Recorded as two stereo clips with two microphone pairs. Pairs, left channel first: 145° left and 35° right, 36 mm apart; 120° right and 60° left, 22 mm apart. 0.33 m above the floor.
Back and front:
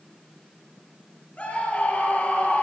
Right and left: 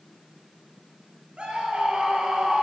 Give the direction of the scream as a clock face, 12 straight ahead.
9 o'clock.